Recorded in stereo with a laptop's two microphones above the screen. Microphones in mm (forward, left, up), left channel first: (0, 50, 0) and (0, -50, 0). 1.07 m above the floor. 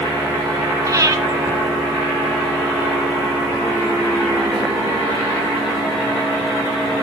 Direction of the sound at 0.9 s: 35° right (ahead or behind).